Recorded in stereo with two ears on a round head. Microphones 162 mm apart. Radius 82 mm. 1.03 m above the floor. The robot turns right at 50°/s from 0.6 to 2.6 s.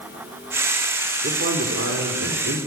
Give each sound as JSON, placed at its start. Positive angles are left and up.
{"t": 1.2, "sound": "a man speaking", "azimuth_deg": -130, "distance_m": 3.5}